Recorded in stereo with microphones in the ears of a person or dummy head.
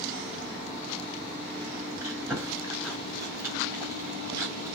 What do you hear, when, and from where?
2.0 s chewing: 15° right (ahead or behind), 1.6 m